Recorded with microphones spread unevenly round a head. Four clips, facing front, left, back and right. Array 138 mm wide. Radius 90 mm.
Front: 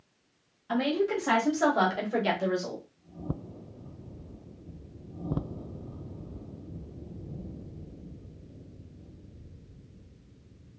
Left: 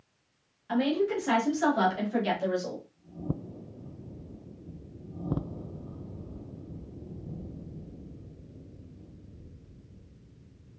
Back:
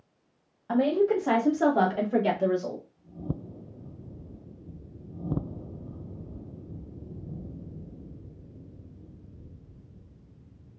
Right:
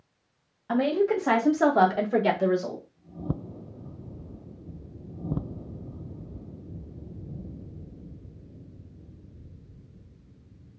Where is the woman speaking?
145° right, 1.6 m; by 2.8 s 80° right, 1.6 m.